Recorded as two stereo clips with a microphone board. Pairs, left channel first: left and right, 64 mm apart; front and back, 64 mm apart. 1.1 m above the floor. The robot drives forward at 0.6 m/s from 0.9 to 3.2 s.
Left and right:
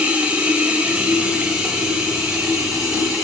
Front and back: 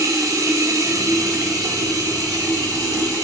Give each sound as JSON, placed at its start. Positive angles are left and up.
{"t": 0.0, "sound": "running water", "azimuth_deg": -160, "distance_m": 1.8}